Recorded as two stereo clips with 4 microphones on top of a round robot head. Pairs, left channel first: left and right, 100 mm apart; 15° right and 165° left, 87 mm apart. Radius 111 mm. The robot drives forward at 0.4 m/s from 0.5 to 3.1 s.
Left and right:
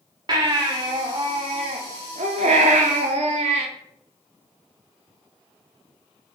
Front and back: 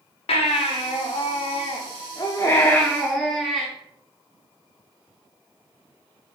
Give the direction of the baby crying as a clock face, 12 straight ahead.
1 o'clock.